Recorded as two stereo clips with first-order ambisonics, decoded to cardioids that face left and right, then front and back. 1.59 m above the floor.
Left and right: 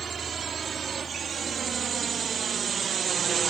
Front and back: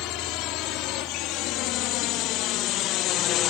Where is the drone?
25° right; by 3.5 s 30° right.